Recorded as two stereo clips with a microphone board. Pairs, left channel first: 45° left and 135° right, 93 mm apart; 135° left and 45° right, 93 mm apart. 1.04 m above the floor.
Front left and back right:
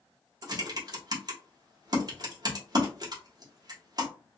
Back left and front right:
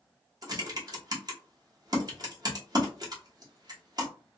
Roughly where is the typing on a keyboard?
Right.